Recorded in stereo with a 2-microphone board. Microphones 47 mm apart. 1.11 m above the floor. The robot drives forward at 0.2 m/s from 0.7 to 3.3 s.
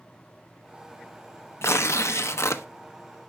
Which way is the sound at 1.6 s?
70° left (ahead or behind).